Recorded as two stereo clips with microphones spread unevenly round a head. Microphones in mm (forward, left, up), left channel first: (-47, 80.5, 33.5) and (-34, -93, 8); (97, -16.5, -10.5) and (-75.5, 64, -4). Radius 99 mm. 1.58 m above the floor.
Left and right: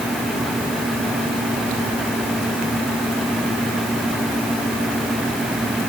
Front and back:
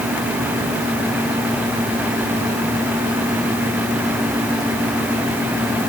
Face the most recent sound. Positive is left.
No sound to turn to.